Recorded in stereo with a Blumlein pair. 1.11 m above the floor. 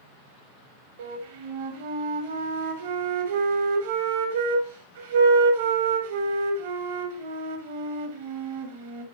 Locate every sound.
1.0 s a flute: 55° right, 0.8 m